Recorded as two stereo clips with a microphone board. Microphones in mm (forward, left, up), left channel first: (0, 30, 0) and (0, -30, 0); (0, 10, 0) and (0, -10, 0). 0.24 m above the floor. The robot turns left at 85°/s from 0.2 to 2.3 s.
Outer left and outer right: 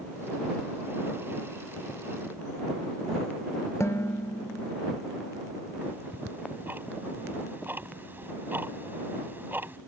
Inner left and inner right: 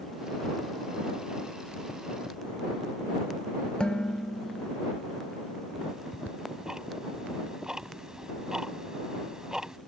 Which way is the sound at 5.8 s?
40° right (ahead or behind).